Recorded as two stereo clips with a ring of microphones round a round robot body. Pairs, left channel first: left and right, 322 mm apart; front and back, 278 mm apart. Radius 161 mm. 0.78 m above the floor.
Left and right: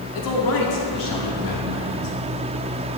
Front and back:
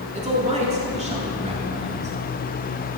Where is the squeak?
No squeak in this recording.